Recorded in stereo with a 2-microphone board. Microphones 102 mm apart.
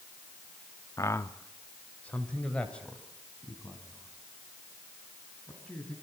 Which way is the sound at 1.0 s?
35° left (ahead or behind).